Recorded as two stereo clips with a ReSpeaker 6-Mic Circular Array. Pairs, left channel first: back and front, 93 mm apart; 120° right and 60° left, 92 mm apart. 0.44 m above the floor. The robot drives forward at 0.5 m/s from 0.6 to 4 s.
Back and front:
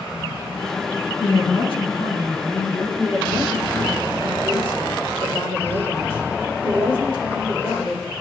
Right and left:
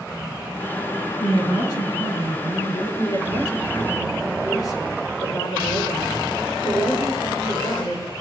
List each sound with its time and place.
1.2 s a woman speaking: 155° right, 3.5 m; by 2.9 s 160° right, 4.5 m
3.0 s a woman speaking: 160° right, 5.5 m